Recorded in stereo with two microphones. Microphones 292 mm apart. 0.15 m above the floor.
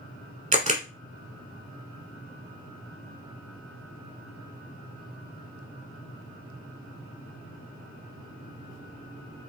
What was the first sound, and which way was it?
A camera shutter, 25° right (ahead or behind).